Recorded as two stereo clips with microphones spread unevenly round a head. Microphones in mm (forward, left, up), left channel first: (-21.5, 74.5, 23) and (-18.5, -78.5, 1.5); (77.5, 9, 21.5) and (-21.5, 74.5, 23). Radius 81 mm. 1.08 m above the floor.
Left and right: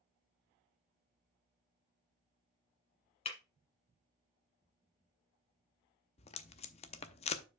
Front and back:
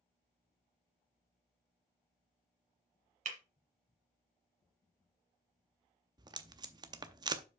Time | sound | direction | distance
3.2 | breaking glass | 135° left | 1.8 m
6.2 | tape being pulled | 105° left | 0.6 m